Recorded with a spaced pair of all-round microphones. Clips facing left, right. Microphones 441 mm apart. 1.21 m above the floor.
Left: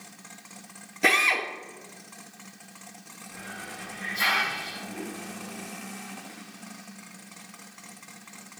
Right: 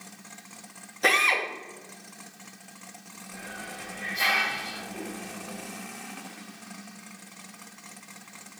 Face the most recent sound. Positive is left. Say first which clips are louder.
# right 1 dB
turn(degrees=65)  # may be behind; listen again after turning